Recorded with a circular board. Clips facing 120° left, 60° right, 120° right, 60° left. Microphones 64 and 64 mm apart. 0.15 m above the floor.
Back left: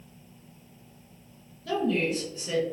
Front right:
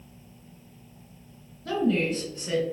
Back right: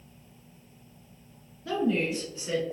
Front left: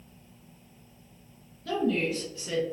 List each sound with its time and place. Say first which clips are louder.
1.6 s a woman speaking: front right 2 dB, even; 65° right, 1.5 m